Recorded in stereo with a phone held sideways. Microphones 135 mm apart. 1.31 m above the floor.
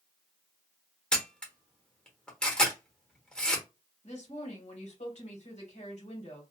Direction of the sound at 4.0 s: 60° left (ahead or behind).